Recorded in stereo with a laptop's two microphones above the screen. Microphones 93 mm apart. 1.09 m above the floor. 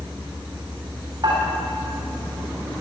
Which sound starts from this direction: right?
Dishes clattering, at 1.2 s.